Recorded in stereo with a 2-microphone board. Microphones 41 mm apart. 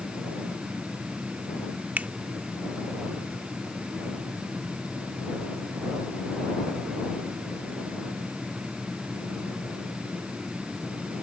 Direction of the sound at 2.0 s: 45° right (ahead or behind).